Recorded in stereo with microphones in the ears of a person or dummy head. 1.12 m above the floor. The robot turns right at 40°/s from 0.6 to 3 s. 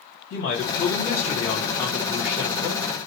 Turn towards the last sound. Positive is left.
turn(degrees=-145)